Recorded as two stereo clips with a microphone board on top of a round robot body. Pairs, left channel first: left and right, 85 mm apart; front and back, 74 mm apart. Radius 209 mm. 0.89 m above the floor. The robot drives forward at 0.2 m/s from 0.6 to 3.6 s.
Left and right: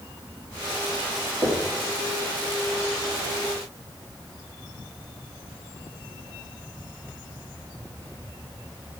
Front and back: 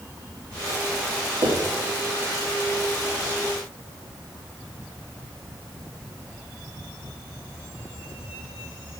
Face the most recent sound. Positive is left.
turn(degrees=-160)